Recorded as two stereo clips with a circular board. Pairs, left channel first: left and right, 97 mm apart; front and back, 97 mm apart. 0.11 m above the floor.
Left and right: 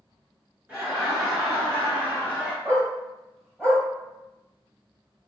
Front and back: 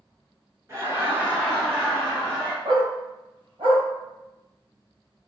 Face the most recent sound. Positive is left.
turn(degrees=175)